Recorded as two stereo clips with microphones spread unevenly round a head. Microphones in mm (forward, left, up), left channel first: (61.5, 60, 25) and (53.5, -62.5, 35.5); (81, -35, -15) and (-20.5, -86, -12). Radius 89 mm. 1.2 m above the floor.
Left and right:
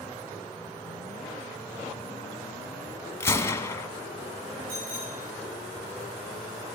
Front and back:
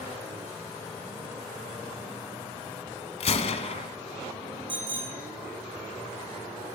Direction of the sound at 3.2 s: 15° left.